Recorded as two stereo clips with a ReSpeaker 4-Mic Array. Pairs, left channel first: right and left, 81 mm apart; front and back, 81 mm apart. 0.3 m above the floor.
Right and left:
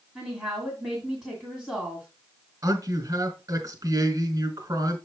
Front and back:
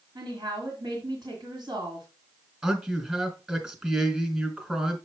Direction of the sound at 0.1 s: 175° right.